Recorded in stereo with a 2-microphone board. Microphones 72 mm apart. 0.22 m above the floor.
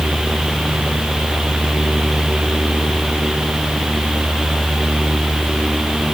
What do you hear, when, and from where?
Only background noise.